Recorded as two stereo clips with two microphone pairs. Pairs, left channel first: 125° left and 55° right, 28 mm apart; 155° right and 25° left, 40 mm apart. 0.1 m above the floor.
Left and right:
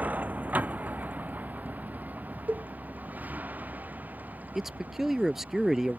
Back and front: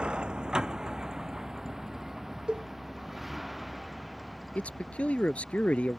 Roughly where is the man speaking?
Behind right.